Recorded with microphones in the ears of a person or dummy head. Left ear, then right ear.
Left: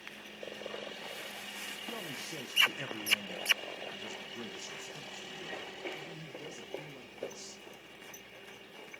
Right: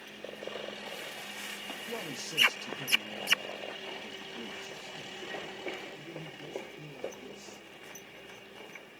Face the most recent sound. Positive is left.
turn(degrees=75)  # may be behind; listen again after turning